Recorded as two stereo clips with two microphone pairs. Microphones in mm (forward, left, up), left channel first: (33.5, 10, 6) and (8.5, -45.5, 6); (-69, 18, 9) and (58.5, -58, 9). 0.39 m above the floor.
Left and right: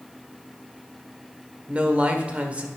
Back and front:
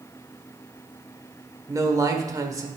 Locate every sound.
1.7 s a man speaking: 70° right, 1.3 m